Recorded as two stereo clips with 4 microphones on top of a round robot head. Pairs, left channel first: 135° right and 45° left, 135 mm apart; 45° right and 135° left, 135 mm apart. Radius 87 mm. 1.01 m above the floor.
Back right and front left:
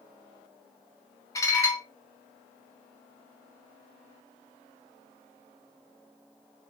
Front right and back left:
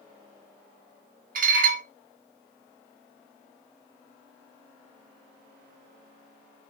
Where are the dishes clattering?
155° left, 0.7 m.